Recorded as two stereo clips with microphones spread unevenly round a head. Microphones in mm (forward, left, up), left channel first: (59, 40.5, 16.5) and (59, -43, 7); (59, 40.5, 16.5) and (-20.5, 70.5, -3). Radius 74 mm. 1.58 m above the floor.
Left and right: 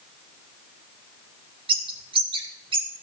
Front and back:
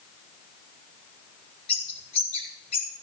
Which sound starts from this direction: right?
A bird, at 1.7 s.